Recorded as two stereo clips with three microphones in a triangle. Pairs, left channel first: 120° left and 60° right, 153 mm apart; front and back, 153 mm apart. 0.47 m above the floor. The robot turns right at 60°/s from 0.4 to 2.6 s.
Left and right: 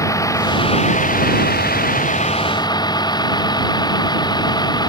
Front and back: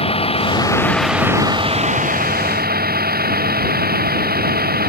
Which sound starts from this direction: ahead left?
A vehicle, at 0.0 s.